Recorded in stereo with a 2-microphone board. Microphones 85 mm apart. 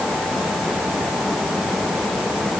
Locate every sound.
Only background noise.